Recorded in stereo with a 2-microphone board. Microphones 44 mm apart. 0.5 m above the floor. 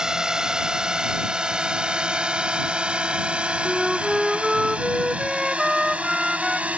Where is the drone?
15° right (ahead or behind); by 6.8 s 30° right (ahead or behind).